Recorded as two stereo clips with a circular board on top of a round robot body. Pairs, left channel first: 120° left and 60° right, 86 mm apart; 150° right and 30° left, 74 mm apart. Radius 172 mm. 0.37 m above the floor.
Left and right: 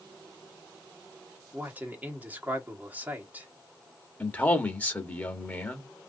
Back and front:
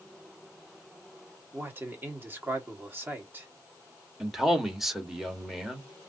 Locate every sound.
1.5 s a man speaking: 5° right, 1.5 m
4.2 s a man speaking: 110° left, 1.4 m